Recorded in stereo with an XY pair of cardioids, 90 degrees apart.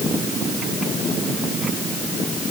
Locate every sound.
Only background noise.